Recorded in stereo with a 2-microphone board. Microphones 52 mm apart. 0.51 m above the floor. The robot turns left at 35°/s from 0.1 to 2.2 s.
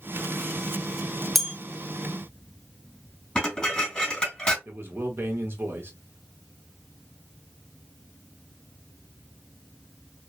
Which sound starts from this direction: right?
A man speaking, at 4.7 s.